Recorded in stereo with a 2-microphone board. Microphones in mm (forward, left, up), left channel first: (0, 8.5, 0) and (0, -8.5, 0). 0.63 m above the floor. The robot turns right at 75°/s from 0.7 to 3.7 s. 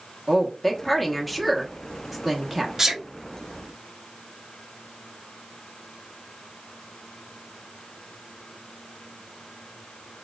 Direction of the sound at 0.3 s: 15° left (ahead or behind).